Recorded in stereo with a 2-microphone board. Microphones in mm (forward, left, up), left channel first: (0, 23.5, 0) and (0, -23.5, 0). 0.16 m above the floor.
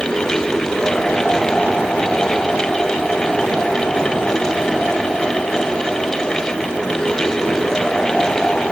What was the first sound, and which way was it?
Only background noise.